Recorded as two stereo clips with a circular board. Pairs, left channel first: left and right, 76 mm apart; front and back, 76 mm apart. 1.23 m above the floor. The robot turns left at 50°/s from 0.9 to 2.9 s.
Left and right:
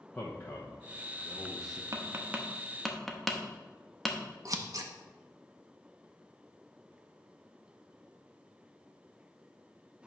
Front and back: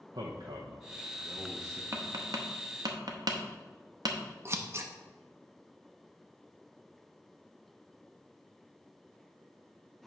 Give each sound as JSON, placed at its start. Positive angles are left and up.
{"t": 0.1, "sound": "a man speaking", "azimuth_deg": 165, "distance_m": 0.9}
{"t": 1.9, "sound": "tapping", "azimuth_deg": -135, "distance_m": 0.9}
{"t": 4.5, "sound": "scissors", "azimuth_deg": -125, "distance_m": 0.7}